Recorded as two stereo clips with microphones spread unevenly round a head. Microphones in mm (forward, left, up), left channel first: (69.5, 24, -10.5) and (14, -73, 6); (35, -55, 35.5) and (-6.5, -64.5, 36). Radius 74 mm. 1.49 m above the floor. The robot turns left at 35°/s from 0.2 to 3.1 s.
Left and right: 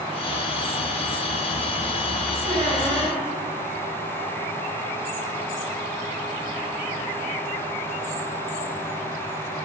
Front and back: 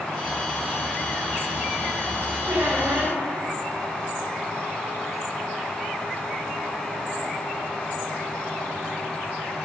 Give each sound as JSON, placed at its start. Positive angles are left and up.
{"t": 2.5, "sound": "a squeak", "azimuth_deg": -150, "distance_m": 2.0}